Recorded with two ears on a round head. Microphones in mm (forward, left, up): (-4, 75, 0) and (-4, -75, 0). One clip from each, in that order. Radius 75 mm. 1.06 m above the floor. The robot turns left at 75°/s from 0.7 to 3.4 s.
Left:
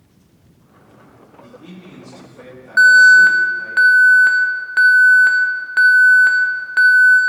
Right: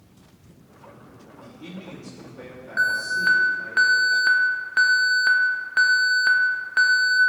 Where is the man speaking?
90° right, 1.6 m; by 3.8 s 125° left, 1.6 m.